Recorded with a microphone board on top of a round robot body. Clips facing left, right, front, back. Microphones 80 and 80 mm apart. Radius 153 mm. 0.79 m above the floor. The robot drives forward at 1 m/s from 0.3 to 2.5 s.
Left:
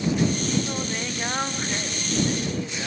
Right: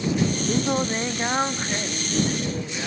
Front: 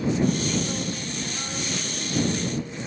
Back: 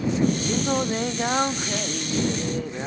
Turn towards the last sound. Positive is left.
turn(degrees=-170)